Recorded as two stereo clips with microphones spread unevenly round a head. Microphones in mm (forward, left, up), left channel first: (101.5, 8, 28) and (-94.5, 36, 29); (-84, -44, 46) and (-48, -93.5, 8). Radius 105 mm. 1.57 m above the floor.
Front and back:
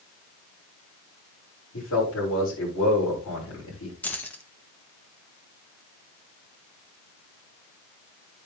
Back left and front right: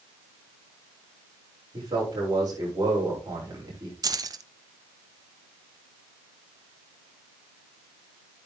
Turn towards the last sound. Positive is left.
turn(degrees=-90)